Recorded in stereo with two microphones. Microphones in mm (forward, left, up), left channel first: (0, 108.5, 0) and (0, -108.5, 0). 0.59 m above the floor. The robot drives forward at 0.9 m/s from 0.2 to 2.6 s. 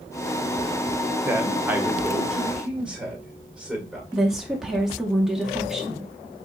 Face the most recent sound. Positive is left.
turn(degrees=0)  # may be behind; listen again after turning